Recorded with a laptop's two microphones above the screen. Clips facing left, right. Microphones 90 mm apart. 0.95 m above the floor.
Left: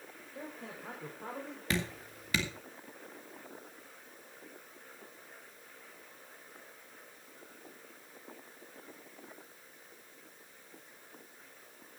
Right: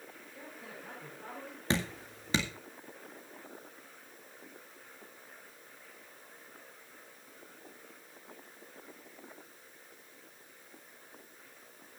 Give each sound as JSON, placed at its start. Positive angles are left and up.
{"t": 0.3, "sound": "a man speaking", "side_deg": 35, "distance_m": 4.0}
{"t": 1.7, "sound": "dripping", "side_deg": -30, "distance_m": 1.9}